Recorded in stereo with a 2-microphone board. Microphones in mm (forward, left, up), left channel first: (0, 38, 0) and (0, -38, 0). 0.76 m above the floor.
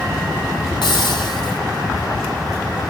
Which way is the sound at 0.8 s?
75° left (ahead or behind).